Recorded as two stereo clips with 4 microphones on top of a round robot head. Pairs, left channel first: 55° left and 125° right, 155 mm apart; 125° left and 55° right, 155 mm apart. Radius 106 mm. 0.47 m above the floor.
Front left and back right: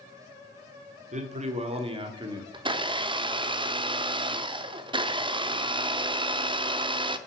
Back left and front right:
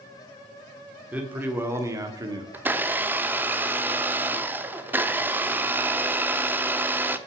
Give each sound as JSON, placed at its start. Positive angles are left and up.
{"t": 1.1, "sound": "a man speaking", "azimuth_deg": -130, "distance_m": 1.8}
{"t": 2.5, "sound": "a blender", "azimuth_deg": -120, "distance_m": 0.7}